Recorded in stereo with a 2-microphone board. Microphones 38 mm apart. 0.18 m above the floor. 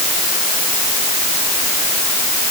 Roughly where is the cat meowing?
I don't hear a cat meowing.